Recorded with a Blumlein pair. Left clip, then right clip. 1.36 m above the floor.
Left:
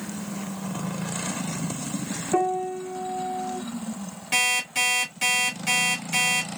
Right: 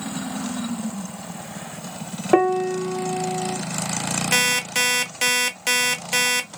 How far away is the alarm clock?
About 1.4 m.